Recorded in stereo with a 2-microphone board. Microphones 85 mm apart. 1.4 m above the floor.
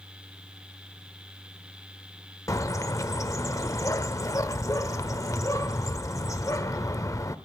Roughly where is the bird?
Left.